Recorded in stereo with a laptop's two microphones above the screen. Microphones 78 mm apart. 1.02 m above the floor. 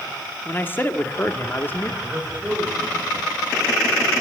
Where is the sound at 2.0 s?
20° right (ahead or behind), 5.5 m.